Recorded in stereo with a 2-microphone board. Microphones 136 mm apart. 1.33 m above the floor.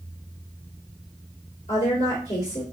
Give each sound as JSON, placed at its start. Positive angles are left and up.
{"t": 1.7, "sound": "a woman speaking", "side_deg": 70, "distance_m": 2.0}